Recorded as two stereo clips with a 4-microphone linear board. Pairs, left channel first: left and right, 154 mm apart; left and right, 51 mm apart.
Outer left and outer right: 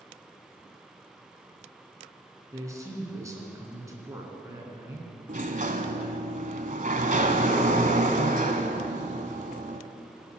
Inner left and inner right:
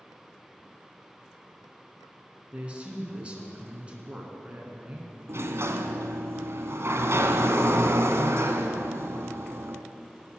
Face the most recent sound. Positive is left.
turn(degrees=-60)  # may be behind; listen again after turning